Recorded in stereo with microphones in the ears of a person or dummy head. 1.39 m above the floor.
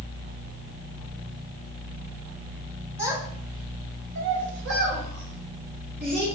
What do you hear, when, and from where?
3.0 s a child speaking: 15° right (ahead or behind), 1.5 m; by 6.2 s 50° right (ahead or behind), 2 m